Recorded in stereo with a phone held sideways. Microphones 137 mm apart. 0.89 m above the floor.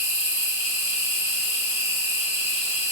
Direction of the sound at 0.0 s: 50° left (ahead or behind).